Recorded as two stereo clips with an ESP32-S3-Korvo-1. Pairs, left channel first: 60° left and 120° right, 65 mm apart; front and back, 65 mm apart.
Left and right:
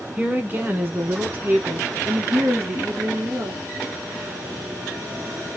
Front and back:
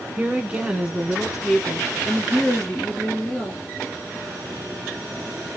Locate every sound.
0.2 s a woman speaking: 155° right, 1.2 m; by 3.7 s 75° right, 2.5 m